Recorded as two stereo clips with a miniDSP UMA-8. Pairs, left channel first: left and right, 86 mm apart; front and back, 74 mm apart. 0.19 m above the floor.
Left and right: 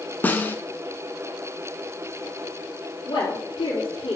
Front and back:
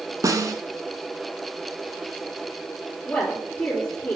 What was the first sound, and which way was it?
A snare drum, 155° left.